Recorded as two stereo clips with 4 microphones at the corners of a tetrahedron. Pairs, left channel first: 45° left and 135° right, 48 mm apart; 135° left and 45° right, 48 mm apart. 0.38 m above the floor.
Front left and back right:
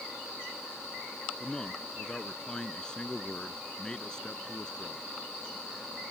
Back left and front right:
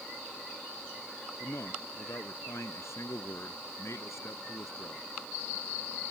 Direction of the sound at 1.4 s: 120° left.